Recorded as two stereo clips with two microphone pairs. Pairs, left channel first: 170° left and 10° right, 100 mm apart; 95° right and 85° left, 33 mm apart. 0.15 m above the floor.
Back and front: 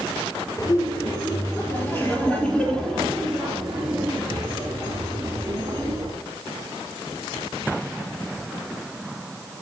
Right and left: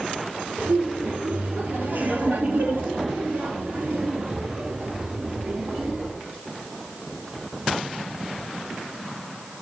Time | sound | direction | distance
0.6 | laughter | 120° left | 4.5 m